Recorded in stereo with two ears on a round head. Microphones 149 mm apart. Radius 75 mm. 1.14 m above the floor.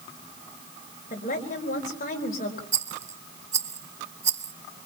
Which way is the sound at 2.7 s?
20° right (ahead or behind).